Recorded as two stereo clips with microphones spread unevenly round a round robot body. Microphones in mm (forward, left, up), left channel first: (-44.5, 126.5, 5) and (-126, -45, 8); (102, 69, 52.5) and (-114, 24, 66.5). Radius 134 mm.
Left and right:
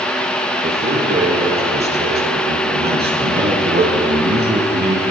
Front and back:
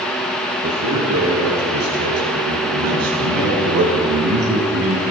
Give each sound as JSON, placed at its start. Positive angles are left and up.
{"t": 0.6, "sound": "a man speaking", "azimuth_deg": -145, "distance_m": 6.5}